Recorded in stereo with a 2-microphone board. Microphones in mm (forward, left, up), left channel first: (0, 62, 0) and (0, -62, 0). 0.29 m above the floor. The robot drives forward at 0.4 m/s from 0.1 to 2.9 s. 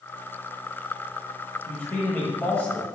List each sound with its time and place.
1.7 s a man speaking: 15° left (ahead or behind), 1.0 m; by 2.9 s 10° left (ahead or behind), 1.2 m